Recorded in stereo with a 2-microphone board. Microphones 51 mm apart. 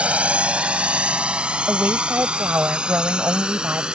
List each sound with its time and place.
0.0 s a drone: 25° right (ahead or behind); by 4.0 s 15° right (ahead or behind)
1.7 s a woman speaking: 35° right (ahead or behind)